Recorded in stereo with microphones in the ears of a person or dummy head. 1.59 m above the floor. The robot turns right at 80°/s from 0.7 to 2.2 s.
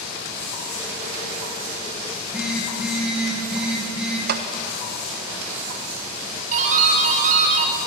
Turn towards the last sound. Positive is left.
turn(degrees=-45)  # may be behind; listen again after turning